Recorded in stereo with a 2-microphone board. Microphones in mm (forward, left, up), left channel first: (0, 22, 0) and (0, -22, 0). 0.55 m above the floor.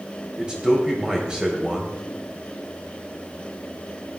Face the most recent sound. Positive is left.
turn(degrees=-20)  # may be behind; listen again after turning